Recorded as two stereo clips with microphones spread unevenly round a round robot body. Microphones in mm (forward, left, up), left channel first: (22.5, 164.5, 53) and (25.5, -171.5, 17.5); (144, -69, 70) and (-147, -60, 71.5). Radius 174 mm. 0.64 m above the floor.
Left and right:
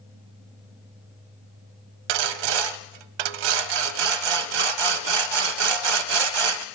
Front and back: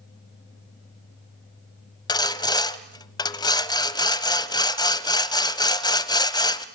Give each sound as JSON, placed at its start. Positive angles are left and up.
{"t": 2.1, "sound": "sawing", "azimuth_deg": -80, "distance_m": 0.9}